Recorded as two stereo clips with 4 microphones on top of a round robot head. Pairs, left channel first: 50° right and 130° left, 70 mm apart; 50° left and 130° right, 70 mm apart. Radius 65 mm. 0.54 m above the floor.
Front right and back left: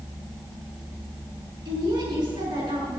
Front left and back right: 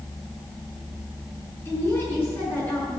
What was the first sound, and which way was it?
A woman speaking, 105° left.